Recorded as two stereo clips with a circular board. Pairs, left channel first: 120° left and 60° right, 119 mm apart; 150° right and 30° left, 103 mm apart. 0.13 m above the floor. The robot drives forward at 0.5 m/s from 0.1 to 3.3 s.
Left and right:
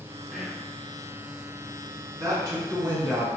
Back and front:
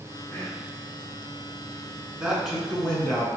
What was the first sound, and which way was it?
Whispering, 135° right.